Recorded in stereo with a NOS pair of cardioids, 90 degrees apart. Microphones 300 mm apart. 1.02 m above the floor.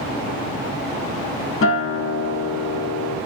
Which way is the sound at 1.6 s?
45° left.